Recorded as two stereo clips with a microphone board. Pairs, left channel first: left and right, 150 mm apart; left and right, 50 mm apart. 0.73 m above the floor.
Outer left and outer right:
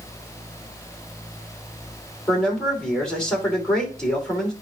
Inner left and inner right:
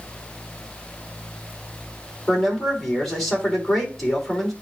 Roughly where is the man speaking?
Centre.